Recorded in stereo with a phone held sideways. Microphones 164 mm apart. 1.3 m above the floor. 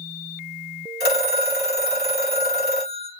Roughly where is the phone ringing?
Left.